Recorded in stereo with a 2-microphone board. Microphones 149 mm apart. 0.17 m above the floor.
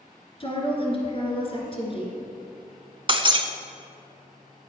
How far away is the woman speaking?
About 2.0 m.